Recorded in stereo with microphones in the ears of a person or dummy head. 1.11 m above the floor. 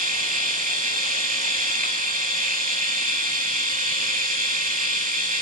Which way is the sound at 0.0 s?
35° right (ahead or behind).